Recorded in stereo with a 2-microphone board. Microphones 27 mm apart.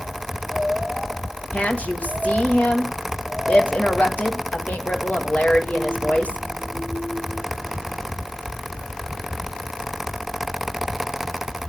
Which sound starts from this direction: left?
A woman speaking, at 1.5 s.